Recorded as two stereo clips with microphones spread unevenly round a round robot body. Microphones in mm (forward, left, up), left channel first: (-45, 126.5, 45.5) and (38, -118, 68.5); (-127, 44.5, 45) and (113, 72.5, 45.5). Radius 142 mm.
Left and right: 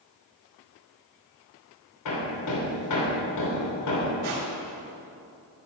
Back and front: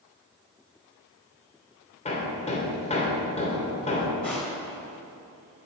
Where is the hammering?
125° left, 3.5 m.